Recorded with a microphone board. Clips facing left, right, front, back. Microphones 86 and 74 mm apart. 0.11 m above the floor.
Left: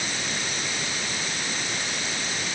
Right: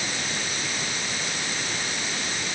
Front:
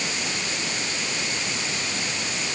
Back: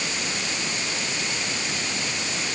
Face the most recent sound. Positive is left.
No sound to turn to.